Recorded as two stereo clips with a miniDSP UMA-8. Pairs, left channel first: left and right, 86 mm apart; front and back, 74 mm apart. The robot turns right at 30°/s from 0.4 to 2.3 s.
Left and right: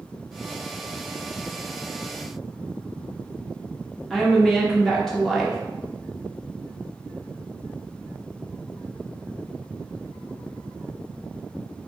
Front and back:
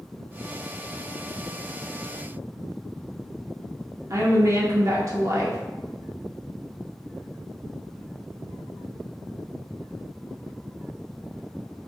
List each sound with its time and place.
4.1 s a woman speaking: 170° left, 0.7 m